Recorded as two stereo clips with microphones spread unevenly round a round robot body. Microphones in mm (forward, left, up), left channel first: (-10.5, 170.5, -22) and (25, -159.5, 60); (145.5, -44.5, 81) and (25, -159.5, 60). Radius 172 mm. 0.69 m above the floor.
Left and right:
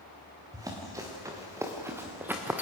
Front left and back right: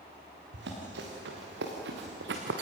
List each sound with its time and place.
0.5 s running footsteps: 160° right, 5 m; by 2.6 s 165° right, 2.5 m